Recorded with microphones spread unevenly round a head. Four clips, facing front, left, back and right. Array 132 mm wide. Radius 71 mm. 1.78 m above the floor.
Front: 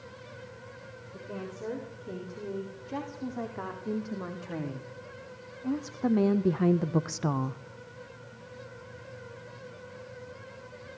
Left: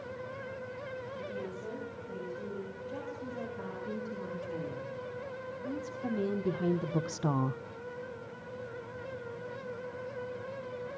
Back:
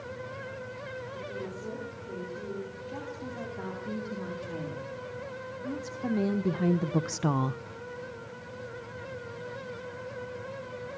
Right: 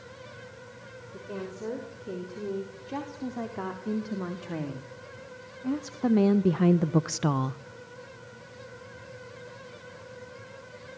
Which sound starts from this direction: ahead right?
A woman speaking, at 1.1 s.